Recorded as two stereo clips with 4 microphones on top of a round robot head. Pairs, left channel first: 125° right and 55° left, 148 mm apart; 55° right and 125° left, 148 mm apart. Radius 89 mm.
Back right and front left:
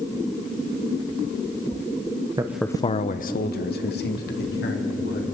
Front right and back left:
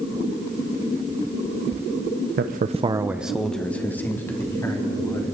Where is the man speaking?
120° left, 0.7 m; by 5.3 s 125° right, 4 m.